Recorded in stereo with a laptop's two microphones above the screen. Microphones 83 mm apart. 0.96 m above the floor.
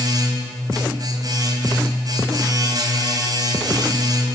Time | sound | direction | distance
0.0 | a machine running | 55° right (ahead or behind) | 4.5 m